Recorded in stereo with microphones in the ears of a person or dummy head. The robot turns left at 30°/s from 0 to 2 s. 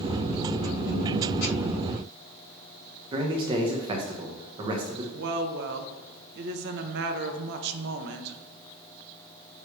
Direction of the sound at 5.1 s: 60° right (ahead or behind).